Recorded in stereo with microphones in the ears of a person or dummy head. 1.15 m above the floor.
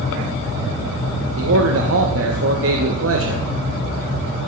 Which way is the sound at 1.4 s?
70° right (ahead or behind).